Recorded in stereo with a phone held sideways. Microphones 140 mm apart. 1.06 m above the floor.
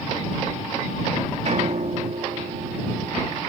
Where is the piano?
55° right (ahead or behind).